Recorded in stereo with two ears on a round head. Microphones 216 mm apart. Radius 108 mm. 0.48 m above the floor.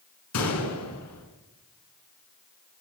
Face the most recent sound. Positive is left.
turn(degrees=75)  # may be behind; listen again after turning